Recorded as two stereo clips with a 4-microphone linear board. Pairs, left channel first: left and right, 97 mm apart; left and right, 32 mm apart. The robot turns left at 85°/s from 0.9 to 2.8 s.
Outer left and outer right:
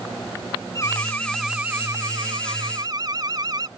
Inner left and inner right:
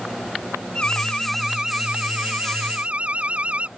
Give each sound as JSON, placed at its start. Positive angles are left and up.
{"t": 0.8, "sound": "an alarm", "azimuth_deg": 45}